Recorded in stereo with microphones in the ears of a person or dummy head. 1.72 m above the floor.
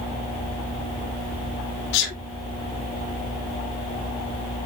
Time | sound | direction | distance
1.9 | a sneeze | 65° left (ahead or behind) | 1.7 m